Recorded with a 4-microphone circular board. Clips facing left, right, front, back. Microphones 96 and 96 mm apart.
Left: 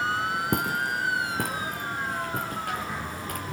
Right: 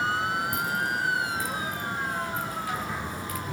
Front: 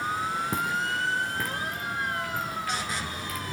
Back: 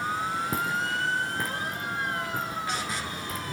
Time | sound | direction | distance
0.5 | footsteps | 95° left | 3.5 m